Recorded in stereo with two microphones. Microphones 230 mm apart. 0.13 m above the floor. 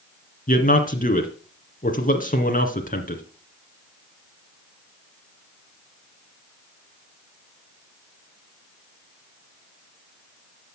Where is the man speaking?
35° left (ahead or behind), 1.9 m.